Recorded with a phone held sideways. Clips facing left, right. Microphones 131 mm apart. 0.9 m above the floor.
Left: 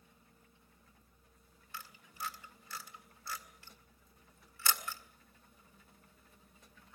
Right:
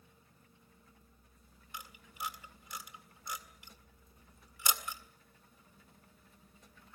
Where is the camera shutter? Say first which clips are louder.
Right 1 dB; 15° right (ahead or behind), 1.8 m.